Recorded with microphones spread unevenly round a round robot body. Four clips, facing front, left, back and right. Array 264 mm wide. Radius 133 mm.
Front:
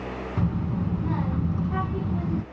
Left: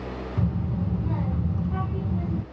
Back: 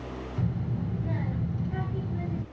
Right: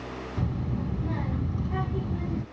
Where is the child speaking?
5° left, 2.0 m.